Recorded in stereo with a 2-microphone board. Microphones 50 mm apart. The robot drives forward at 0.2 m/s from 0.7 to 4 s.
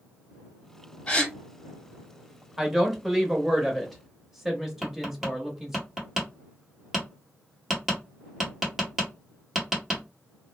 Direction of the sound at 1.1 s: 30° left (ahead or behind).